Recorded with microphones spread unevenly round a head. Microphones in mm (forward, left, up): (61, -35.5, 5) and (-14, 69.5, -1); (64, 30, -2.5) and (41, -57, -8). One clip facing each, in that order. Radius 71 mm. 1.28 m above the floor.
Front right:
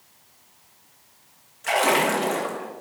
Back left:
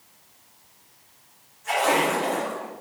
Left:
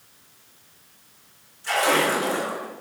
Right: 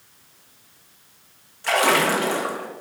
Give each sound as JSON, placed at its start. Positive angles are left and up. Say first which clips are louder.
{"t": 1.6, "sound": "a splash", "louder": "front right 1 dB, right 2 dB", "azimuth_deg": -85, "distance_m": 1.6}